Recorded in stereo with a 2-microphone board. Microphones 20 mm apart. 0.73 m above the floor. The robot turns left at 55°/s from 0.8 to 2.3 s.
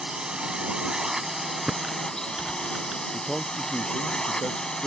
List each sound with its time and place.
0.0 s a drone: 140° right; by 4.9 s 140° left
1.7 s typing on a keyboard: 40° right (ahead or behind); by 3.0 s 75° right (ahead or behind)
3.1 s a man speaking: 30° left (ahead or behind)